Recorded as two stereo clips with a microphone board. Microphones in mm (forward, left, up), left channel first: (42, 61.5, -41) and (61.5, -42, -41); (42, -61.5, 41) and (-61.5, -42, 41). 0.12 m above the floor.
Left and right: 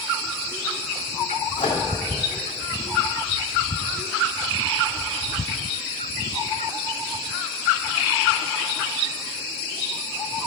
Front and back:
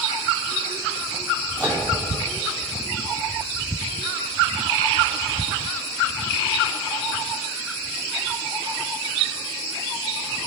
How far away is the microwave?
About 3 m.